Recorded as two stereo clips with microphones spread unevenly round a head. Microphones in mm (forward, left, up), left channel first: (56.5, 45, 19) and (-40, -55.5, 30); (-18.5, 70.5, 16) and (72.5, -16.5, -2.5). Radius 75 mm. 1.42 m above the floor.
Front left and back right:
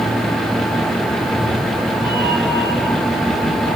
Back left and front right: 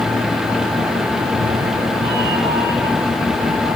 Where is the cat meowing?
55° right, 6.5 m; by 3.8 s 80° right, 6.5 m.